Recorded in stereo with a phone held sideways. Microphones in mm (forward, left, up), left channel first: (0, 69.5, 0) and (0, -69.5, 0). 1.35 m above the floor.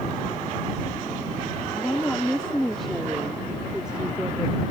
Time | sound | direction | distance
1.7 | a woman speaking | 15° left (ahead or behind) | ?